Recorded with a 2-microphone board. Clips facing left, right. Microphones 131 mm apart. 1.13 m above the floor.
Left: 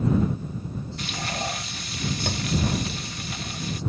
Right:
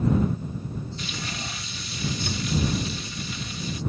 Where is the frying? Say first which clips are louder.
Left 4 dB; 60° left (ahead or behind).